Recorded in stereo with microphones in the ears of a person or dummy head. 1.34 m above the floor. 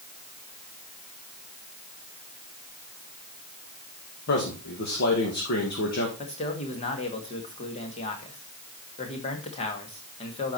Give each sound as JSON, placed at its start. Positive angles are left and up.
{"t": 4.3, "sound": "a man speaking", "side_deg": 55, "distance_m": 1.9}
{"t": 6.2, "sound": "a man speaking", "side_deg": 35, "distance_m": 1.9}